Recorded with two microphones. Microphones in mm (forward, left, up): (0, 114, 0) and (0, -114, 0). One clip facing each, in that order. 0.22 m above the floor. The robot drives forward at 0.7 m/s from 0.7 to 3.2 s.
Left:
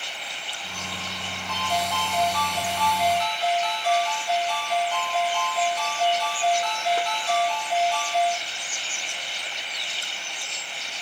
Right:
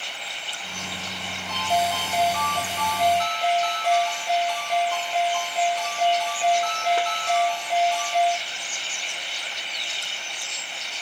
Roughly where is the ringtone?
Right.